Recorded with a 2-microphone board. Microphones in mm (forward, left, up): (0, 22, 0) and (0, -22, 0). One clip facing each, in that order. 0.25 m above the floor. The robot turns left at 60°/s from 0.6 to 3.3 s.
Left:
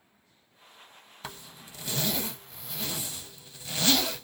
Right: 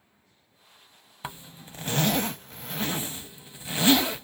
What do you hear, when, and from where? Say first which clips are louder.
1.2 s a zipper: right 4 dB; 15° right (ahead or behind), 0.6 m; by 4.2 s 20° right (ahead or behind), 0.6 m